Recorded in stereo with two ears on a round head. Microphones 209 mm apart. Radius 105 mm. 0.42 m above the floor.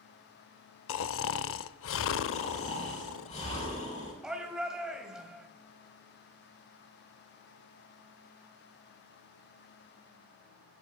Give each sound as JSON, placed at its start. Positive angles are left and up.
{"t": 0.9, "sound": "snoring", "side_deg": 55, "distance_m": 0.6}
{"t": 2.3, "sound": "snoring", "side_deg": 30, "distance_m": 7.5}
{"t": 4.2, "sound": "a shout", "side_deg": -5, "distance_m": 2.5}